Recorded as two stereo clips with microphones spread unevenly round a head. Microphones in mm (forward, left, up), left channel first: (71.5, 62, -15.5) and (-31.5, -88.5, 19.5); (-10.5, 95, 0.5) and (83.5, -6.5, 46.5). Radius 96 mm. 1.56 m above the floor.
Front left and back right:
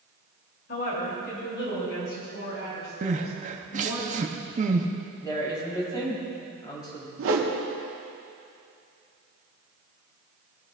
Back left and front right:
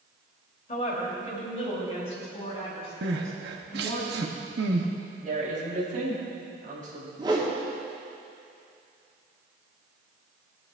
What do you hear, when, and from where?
0.7 s a woman speaking: 100° left, 3 m; by 4.0 s 80° left, 7 m
3.0 s crying: 75° right, 0.9 m
5.2 s a woman speaking: 15° right, 4 m
7.2 s a whoosh: 115° right, 1.5 m